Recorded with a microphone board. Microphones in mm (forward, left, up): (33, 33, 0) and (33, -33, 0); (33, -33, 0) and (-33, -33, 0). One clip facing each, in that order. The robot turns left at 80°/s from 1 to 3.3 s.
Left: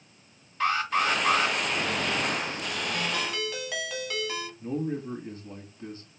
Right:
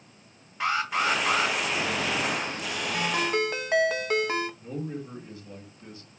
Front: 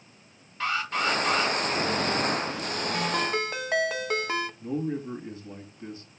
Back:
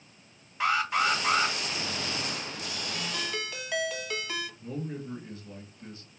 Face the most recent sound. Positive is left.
turn(degrees=50)